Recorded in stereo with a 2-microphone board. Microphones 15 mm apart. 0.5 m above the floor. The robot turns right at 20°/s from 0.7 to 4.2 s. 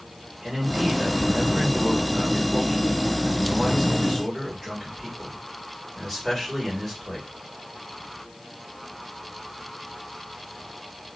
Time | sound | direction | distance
0.4 | a man speaking | 55° right | 1.7 m